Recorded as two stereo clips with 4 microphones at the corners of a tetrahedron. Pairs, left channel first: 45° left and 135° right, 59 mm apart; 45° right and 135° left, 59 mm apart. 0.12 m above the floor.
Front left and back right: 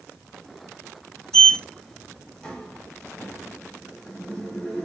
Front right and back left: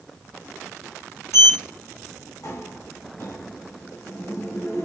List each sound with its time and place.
1.3 s a sliding door: 35° right, 1.1 m